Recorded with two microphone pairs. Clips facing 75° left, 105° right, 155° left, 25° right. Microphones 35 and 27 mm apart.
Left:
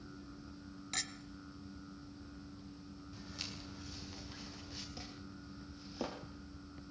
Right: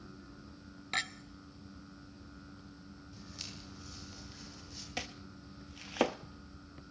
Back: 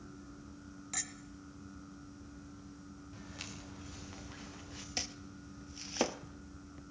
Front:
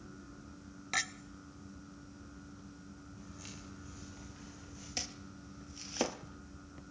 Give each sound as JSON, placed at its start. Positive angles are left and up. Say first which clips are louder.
{"t": 0.9, "sound": "a clink", "louder": "right 7 dB, front 9 dB", "azimuth_deg": -60, "distance_m": 0.9}
{"t": 3.1, "sound": "footsteps", "louder": "left 1 dB, back 5 dB", "azimuth_deg": 160, "distance_m": 9.0}
{"t": 5.0, "sound": "chopping", "louder": "right 6 dB, back 1 dB", "azimuth_deg": -125, "distance_m": 1.2}